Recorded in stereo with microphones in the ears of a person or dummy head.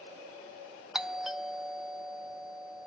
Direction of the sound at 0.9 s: 5° right (ahead or behind).